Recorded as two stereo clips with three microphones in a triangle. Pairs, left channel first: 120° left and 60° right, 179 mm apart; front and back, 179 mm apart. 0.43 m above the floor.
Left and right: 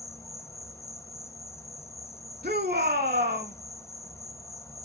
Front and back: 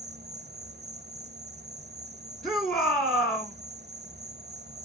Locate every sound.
0.0 s an insect: 165° right, 0.8 m
2.4 s a shout: 85° right, 3.5 m